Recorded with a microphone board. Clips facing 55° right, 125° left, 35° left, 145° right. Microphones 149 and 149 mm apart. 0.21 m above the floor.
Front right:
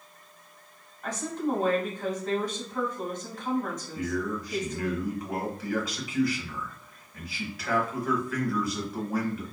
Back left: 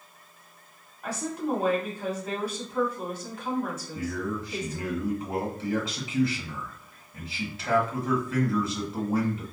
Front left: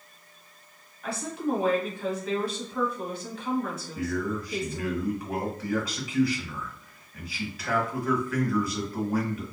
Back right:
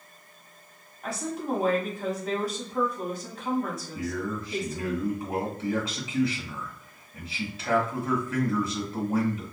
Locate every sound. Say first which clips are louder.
1.0 s a woman speaking: even, front left 1 dB; 160° right, 1.5 m
4.0 s a man speaking: front right 1 dB, front left 3 dB; 170° left, 1.3 m